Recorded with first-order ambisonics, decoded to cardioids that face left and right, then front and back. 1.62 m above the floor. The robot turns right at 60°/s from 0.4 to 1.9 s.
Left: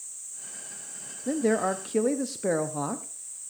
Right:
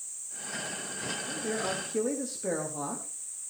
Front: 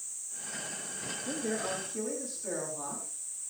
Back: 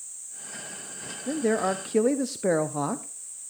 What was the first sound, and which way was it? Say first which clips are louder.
A man speaking: left 10 dB, back 10 dB; 120° left.